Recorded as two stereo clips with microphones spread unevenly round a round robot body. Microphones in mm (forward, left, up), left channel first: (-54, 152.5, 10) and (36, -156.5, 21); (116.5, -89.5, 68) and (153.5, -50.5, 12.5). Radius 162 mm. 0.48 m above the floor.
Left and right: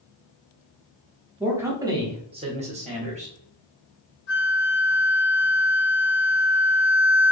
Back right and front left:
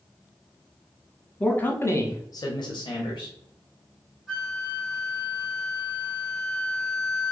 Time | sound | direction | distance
1.4 | a man speaking | 10° left | 1.1 m
4.3 | a flute | 105° left | 1.5 m